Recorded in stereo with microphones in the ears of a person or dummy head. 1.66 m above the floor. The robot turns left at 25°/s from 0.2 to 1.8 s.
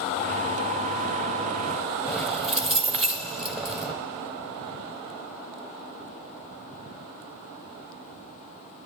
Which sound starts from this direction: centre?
Keys jangling, at 2.1 s.